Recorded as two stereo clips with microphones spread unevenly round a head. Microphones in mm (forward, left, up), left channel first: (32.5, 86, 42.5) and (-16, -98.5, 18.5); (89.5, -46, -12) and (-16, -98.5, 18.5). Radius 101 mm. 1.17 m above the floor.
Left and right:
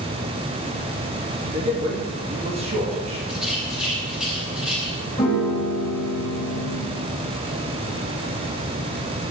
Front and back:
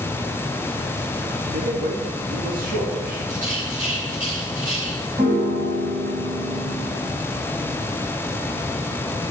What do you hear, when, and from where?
1.5 s a man speaking: 165° right, 2.5 m
3.3 s a rattle: 170° left, 6 m
5.2 s a piano: 150° left, 4 m